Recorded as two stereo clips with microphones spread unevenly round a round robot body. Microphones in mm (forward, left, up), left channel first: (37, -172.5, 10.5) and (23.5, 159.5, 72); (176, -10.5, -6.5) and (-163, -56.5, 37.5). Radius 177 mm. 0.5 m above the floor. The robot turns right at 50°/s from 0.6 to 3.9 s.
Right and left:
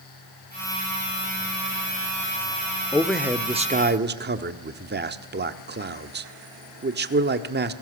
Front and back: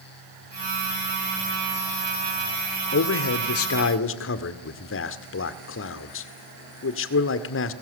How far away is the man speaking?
About 1.5 m.